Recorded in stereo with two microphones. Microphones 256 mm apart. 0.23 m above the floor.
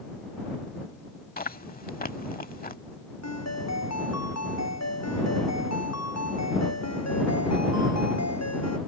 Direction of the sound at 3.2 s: 85° left.